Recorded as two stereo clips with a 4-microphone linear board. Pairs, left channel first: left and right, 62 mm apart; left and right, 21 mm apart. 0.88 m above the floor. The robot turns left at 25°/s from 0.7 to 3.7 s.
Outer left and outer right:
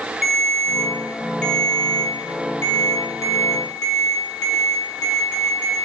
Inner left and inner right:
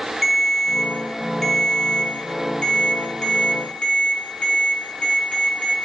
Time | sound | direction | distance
0.2 | a ringtone | 175° right | 4.5 m